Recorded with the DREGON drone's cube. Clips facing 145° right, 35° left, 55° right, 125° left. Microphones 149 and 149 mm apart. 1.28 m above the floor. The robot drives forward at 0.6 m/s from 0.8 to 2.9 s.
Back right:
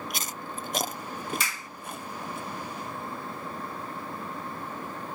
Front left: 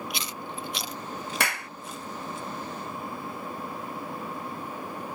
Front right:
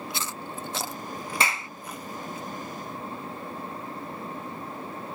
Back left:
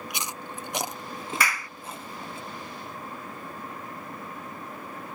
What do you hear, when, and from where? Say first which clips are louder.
0.1 s chewing: front left 1 dB, front right 1 dB; 165° right; by 2.4 s 175° right
1.4 s a clap: front left 6 dB, front right 1 dB; 10° left